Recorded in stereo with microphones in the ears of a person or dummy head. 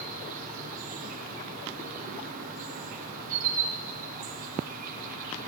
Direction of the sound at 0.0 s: 45° right (ahead or behind).